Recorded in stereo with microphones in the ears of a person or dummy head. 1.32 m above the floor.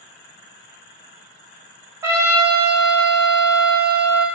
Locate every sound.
2.0 s a trumpet: 15° right (ahead or behind), 1.5 m